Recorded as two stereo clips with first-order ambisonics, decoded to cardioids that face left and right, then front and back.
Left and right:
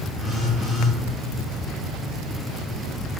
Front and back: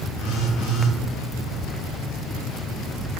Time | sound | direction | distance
0.2 | a phone buzzing | 10° left | 0.5 m